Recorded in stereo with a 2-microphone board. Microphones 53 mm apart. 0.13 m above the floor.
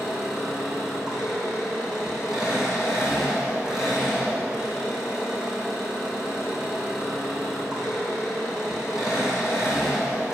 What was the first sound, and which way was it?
An engine running, 10° right (ahead or behind).